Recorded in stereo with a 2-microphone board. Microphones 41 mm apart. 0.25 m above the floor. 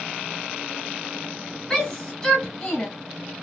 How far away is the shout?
About 1.4 m.